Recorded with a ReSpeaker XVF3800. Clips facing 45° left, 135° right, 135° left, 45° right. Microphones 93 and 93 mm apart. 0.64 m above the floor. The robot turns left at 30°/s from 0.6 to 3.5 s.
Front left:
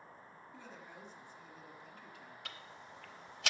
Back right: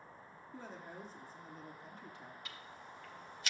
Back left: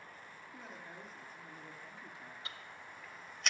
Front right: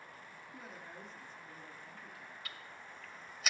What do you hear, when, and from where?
0.5 s a woman speaking: 130° right, 1.3 m; by 2.4 s straight behind, 1.3 m
2.5 s ticking: 70° left, 0.9 m; by 3.5 s 40° left, 0.9 m